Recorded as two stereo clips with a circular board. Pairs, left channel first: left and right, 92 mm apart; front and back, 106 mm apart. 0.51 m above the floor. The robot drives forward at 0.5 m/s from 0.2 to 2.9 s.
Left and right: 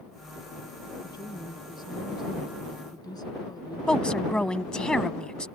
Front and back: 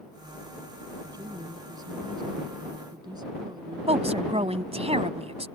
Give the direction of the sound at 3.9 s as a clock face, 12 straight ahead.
6 o'clock.